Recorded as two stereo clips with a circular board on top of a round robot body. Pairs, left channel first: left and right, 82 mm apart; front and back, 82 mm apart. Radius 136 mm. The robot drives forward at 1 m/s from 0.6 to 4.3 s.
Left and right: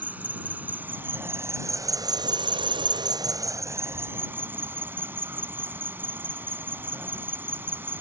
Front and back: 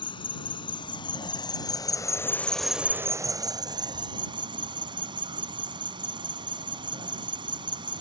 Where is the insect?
20° right; by 8.0 s 155° right.